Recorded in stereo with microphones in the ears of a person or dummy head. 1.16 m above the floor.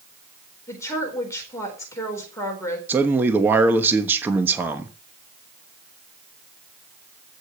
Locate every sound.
0.7 s a woman speaking: 15° left (ahead or behind), 4 m
2.9 s a man speaking: 10° right (ahead or behind), 1.2 m